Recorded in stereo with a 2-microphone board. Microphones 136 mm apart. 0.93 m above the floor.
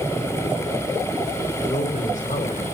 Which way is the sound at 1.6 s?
70° left (ahead or behind).